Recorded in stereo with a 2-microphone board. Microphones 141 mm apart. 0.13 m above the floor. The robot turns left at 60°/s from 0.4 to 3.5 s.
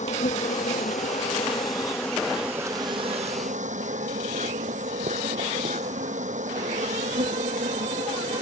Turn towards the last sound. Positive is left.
turn(degrees=-70)